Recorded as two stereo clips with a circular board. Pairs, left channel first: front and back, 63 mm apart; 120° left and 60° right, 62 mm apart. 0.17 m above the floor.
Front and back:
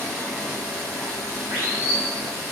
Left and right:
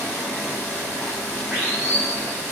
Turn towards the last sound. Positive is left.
turn(degrees=-135)